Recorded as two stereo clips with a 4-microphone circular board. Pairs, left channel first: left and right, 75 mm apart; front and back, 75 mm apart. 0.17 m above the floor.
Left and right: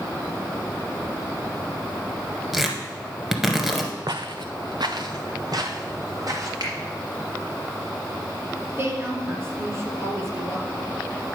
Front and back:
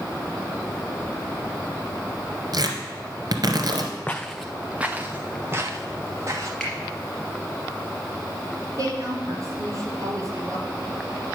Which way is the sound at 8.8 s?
145° right.